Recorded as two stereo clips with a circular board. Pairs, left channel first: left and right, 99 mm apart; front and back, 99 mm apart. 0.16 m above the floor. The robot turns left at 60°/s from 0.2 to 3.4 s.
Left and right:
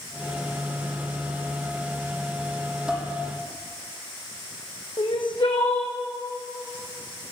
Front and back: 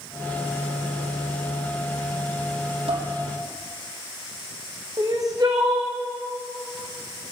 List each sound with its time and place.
2.9 s dishes clattering: 175° right, 4 m; by 3.1 s 175° left, 4 m
5.0 s crying: 125° left, 2.5 m